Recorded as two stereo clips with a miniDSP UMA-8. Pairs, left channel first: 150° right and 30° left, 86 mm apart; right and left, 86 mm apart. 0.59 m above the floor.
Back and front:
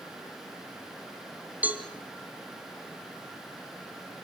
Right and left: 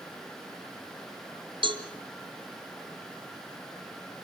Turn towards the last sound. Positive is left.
turn(degrees=100)